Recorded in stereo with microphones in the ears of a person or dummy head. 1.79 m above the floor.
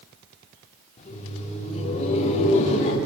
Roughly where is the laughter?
Left.